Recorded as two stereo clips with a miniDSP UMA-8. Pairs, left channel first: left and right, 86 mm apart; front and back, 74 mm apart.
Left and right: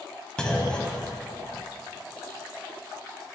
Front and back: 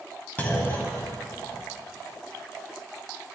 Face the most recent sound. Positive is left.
turn(degrees=25)